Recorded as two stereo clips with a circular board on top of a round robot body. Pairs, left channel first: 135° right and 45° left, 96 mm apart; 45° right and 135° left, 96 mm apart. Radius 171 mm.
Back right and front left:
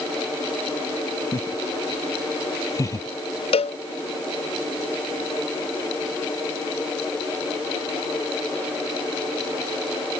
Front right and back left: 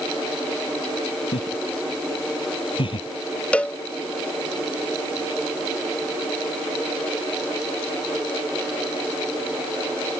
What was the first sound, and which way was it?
Laughter, 80° right.